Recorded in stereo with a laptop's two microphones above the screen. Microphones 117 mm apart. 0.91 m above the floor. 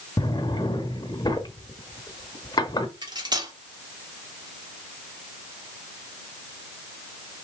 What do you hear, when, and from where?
0.2 s a drawer: 35° left (ahead or behind), 0.8 m
3.0 s cutlery clinking: 40° right (ahead or behind), 1.0 m